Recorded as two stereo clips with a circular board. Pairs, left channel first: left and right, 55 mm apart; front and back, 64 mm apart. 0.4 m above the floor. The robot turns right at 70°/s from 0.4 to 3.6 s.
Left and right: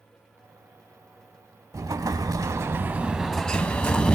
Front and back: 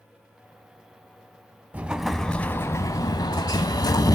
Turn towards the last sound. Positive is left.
turn(degrees=15)